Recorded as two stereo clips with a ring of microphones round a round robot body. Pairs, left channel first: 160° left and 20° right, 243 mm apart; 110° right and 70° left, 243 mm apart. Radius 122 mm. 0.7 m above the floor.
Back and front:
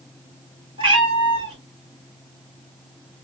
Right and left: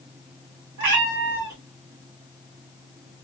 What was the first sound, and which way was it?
A cat meowing, 45° left.